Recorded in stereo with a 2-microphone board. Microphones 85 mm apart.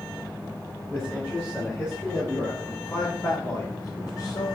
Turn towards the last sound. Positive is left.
turn(degrees=55)  # may be behind; listen again after turning